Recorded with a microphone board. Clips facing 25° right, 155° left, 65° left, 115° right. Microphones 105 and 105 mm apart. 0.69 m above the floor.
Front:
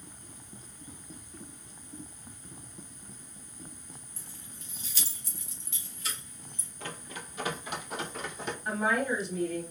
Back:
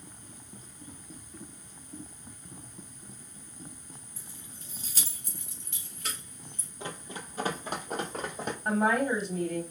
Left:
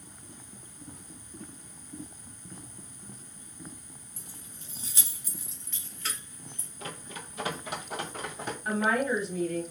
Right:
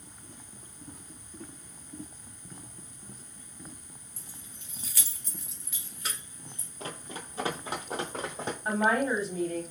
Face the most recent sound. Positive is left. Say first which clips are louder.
# back 3 dB, right 1 dB
turn(degrees=-165)